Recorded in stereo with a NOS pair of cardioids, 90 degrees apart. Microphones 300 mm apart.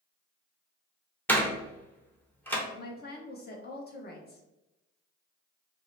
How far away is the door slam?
About 0.9 m.